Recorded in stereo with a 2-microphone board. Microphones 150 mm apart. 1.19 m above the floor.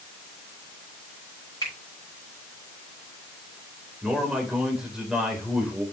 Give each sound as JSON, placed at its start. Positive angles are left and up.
{"t": 1.6, "sound": "a finger snap", "side_deg": 25, "distance_m": 6.5}
{"t": 4.0, "sound": "a man speaking", "side_deg": -5, "distance_m": 4.0}